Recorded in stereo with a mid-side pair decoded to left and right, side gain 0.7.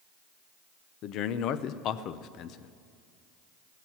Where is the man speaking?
55° left, 0.7 m.